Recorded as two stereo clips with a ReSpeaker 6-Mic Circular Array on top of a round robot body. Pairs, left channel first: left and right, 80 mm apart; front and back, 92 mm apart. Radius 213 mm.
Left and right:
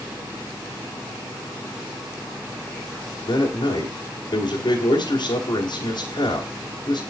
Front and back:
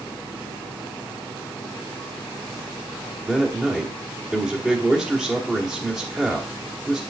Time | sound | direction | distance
3.2 | a man speaking | 95° left | 1.7 m